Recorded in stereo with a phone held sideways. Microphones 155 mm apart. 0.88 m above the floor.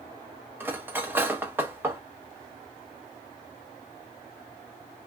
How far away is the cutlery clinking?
About 0.7 m.